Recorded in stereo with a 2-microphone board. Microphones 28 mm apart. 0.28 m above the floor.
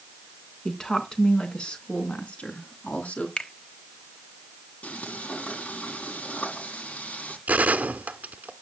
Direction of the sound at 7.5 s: 75° right (ahead or behind).